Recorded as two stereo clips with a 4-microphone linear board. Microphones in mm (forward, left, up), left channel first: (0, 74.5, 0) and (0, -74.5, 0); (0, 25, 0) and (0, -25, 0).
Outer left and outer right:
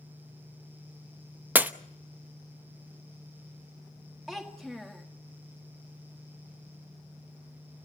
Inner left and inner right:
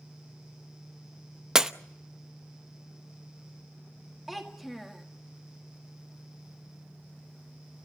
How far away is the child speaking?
About 1.7 m.